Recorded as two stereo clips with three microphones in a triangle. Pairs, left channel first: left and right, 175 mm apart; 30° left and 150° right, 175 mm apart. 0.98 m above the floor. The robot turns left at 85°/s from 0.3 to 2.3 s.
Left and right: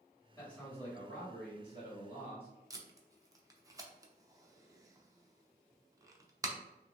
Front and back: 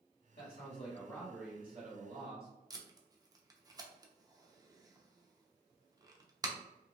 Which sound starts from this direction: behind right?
Tape being pulled, at 2.7 s.